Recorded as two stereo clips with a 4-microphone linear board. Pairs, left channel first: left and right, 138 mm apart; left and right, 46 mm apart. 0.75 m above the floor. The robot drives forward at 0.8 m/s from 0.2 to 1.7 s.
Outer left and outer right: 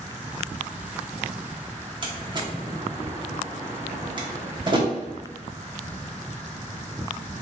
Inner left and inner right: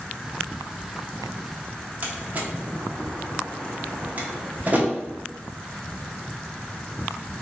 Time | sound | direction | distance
2.0 | a door slam | 35° right (ahead or behind) | 0.7 m